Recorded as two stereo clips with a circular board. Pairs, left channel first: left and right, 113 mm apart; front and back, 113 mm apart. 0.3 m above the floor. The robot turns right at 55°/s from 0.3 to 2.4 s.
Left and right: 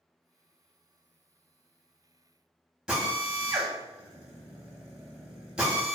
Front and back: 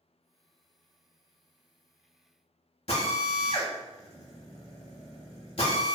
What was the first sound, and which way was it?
A drill, 10° right.